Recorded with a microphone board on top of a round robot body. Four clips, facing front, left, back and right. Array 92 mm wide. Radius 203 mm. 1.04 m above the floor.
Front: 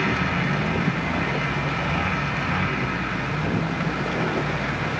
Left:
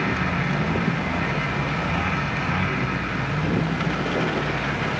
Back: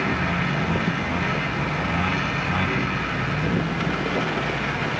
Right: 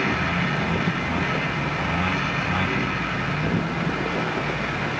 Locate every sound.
Only background noise.